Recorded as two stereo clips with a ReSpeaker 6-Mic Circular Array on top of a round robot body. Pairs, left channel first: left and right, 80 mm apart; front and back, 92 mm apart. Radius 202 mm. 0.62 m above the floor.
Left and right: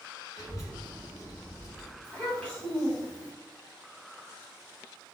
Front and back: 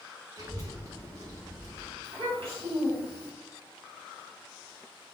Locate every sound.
0.4 s a child speaking: 130° left, 1.3 m
2.0 s a child speaking: 160° left, 1.6 m